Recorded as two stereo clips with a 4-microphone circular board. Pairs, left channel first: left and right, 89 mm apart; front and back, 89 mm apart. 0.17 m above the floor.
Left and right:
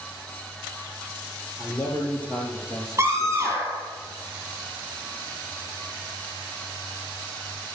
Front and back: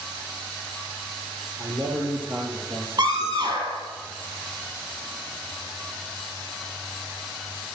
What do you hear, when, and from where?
1.6 s a man speaking: 150° left, 4.5 m; by 3.6 s 175° right, 4.5 m
3.0 s a scream: 155° right, 4.5 m